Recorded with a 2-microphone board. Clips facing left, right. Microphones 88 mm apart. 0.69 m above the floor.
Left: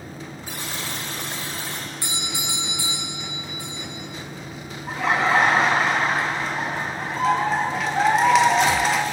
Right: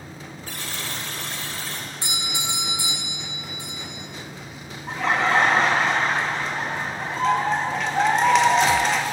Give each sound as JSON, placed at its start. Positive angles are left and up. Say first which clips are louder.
{"t": 0.5, "sound": "a buzzer", "louder": "left 1 dB", "side_deg": 20, "distance_m": 1.3}
{"t": 2.0, "sound": "a doorbell", "louder": "even", "side_deg": -25, "distance_m": 3.5}
{"t": 4.9, "sound": "laughter", "louder": "left 1 dB", "side_deg": 5, "distance_m": 0.5}